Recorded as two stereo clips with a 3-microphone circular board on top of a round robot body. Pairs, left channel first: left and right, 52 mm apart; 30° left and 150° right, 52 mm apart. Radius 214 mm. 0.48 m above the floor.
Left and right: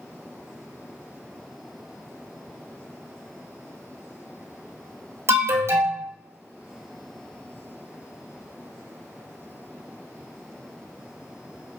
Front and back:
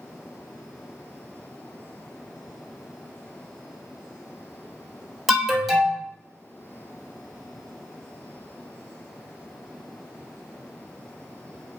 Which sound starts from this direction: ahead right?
An alarm, at 5.3 s.